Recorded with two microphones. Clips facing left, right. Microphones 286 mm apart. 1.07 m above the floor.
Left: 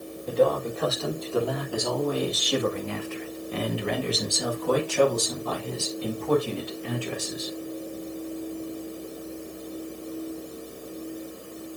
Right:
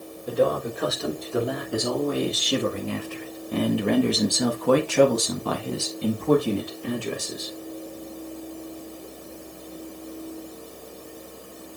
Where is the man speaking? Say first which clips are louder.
Even; 15° right (ahead or behind), 3.5 m; by 7.5 s 50° right (ahead or behind), 3 m.